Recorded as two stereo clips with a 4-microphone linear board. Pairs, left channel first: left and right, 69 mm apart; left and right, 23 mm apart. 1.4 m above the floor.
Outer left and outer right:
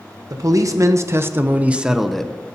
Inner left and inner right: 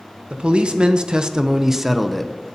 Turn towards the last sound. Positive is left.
turn(degrees=10)  # may be behind; listen again after turning